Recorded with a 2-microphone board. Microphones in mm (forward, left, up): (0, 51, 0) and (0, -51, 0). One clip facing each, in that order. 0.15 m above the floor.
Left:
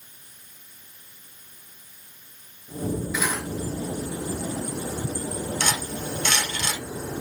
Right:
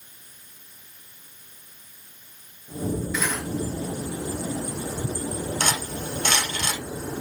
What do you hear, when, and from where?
3.1 s cutlery clinking: 5° left (ahead or behind), 1.5 m
5.6 s cutlery clinking: 45° right (ahead or behind), 2 m